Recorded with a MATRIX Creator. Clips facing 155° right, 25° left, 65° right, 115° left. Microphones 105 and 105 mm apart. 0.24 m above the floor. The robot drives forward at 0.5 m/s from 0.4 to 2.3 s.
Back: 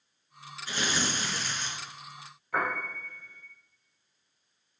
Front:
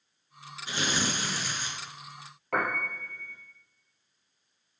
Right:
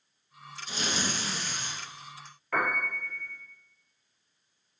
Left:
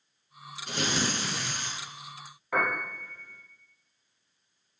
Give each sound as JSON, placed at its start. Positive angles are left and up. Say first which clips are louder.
{"t": 0.7, "sound": "tearing paper", "louder": "front 1 dB, left 3 dB", "azimuth_deg": 90, "distance_m": 3.0}
{"t": 2.5, "sound": "a piano", "louder": "front 1 dB, even", "azimuth_deg": 35, "distance_m": 4.5}